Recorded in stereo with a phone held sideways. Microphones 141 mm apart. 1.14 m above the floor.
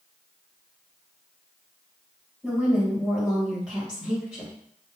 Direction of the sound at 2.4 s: 5° right (ahead or behind).